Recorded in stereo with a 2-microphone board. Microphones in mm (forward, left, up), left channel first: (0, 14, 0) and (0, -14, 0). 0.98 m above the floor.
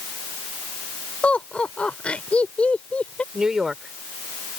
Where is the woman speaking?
20° right (ahead or behind).